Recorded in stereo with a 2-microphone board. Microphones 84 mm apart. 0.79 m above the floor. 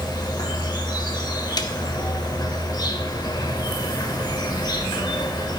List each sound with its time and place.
0.0 s an insect: 55° left (ahead or behind), 0.7 m
1.6 s a snare drum: 55° left (ahead or behind), 0.6 m